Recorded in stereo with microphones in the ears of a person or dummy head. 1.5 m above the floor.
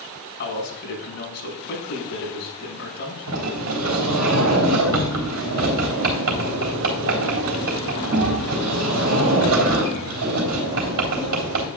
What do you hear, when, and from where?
0.4 s a man speaking: 55° left (ahead or behind), 5 m
3.3 s a sliding door: 75° right (ahead or behind), 3 m